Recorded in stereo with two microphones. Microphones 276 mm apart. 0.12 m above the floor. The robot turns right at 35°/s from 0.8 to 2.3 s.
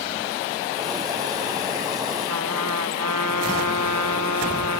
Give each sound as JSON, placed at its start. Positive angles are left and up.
{"t": 2.3, "sound": "a trumpet", "side_deg": -80}